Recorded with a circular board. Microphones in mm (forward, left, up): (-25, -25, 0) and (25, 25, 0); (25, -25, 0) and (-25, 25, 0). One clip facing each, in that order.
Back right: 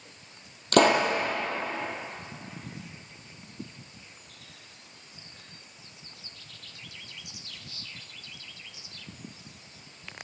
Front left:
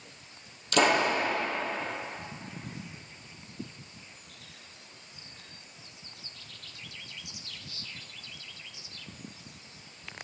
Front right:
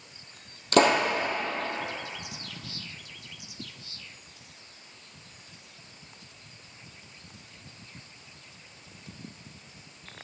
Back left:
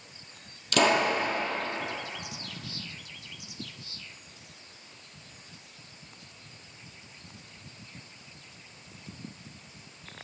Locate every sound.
0.7 s a pop: 95° right, 2 m